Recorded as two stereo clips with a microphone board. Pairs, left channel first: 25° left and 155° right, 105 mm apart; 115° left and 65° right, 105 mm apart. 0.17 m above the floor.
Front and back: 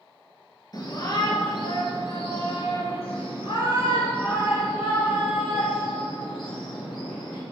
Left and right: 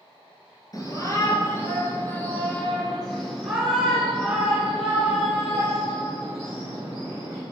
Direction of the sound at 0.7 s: 65° left.